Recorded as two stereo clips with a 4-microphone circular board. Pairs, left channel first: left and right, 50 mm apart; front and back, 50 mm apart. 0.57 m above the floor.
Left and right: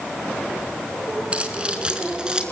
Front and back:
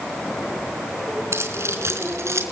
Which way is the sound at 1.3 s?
155° right.